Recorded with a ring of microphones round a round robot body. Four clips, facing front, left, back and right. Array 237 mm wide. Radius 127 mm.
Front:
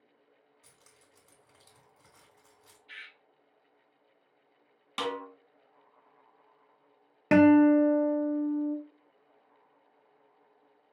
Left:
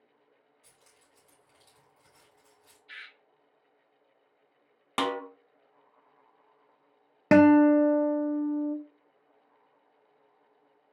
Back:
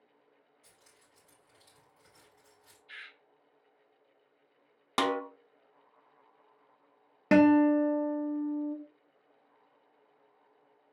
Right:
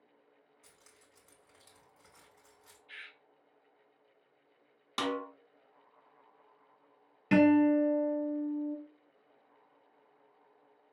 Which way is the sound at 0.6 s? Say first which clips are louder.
Even, front 1 dB; 35° right.